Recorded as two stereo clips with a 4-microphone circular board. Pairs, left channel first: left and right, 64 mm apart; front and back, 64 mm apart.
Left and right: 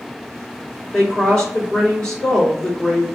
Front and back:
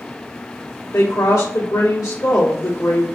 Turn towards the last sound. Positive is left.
turn(degrees=10)